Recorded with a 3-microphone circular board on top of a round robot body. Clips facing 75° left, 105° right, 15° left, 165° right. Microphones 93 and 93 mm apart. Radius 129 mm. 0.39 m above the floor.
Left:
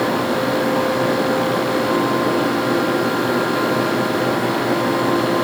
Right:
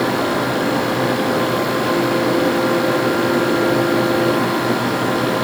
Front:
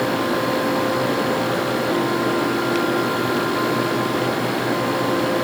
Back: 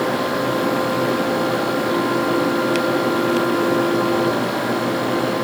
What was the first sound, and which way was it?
Only background noise.